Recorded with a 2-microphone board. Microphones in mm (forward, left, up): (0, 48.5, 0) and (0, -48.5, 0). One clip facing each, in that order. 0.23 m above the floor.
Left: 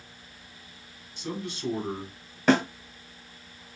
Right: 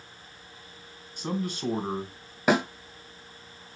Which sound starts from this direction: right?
A man speaking, at 1.2 s.